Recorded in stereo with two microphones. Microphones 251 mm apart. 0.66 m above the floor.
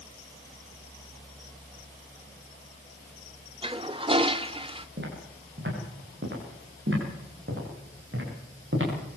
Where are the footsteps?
45° right (ahead or behind), 9 m; by 8.9 s 50° right (ahead or behind), 11.5 m.